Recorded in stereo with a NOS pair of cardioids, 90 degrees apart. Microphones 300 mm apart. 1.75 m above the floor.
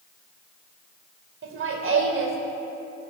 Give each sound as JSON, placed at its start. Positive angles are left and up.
{"t": 1.4, "sound": "laughter", "azimuth_deg": -45, "distance_m": 2.0}